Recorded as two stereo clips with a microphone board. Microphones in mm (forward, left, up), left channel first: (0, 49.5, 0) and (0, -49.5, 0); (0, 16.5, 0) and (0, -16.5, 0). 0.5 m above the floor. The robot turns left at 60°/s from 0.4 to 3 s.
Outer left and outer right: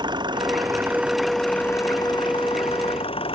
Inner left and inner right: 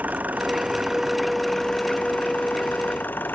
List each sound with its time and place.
0.0 s an engine running: 125° right; by 3.4 s 75° left